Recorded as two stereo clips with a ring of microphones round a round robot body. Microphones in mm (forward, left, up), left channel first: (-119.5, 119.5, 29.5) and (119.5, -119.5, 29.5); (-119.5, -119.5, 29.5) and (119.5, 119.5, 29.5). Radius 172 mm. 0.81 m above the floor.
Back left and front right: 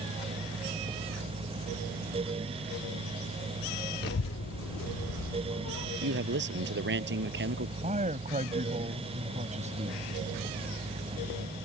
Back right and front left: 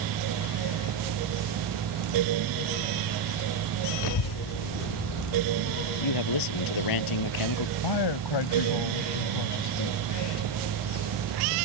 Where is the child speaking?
160° right; by 5.9 s 175° left.